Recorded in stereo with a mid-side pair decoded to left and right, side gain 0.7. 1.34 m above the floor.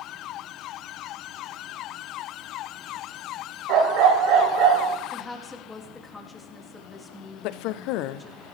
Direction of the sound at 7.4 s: 65° left.